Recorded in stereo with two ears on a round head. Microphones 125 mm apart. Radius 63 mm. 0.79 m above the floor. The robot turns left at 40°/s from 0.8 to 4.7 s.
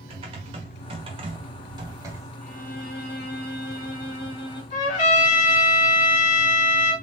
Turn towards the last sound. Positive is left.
turn(degrees=65)  # may be behind; listen again after turning